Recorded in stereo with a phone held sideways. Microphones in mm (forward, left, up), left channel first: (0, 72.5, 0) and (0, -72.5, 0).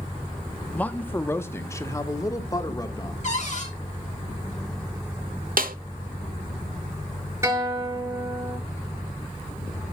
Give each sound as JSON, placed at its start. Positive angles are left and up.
{"t": 0.7, "sound": "a man speaking", "side_deg": 10, "distance_m": 1.1}
{"t": 3.2, "sound": "a cupboard door", "side_deg": 55, "distance_m": 4.5}
{"t": 5.6, "sound": "a snare drum", "side_deg": -75, "distance_m": 1.1}
{"t": 7.4, "sound": "a guitar", "side_deg": -20, "distance_m": 7.0}